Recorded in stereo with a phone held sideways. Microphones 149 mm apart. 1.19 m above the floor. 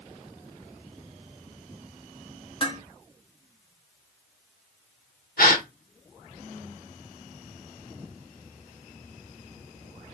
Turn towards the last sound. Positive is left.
turn(degrees=75)  # may be behind; listen again after turning